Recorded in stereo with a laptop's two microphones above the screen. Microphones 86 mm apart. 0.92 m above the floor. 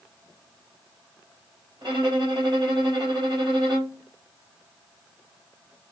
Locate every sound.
1.8 s a violin: 65° right (ahead or behind), 2 m